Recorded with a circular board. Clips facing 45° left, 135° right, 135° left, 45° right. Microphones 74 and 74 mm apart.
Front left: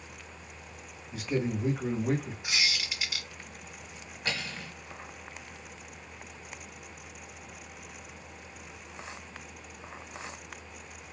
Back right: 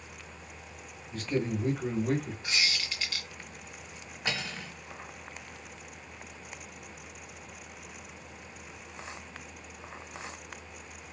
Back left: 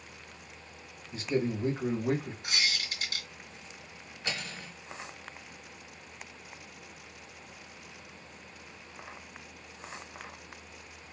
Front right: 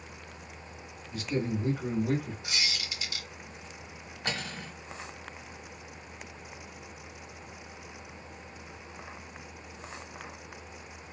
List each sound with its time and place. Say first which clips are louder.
1.1 s a man speaking: even, back left 1 dB; 115° left, 0.9 m
2.4 s a squeak: even, back left 2 dB; 125° left, 1.3 m
4.2 s cutlery clinking: back right 1 dB, front right 3 dB; 70° right, 1.3 m